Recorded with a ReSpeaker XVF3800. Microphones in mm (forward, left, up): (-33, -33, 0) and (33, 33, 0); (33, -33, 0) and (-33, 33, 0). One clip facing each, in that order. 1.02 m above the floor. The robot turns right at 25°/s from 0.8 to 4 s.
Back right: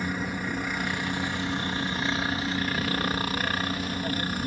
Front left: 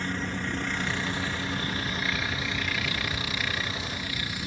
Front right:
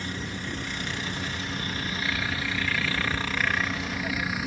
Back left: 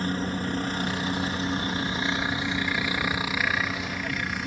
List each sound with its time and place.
0.0 s a helicopter: 150° left; by 4.5 s 130° right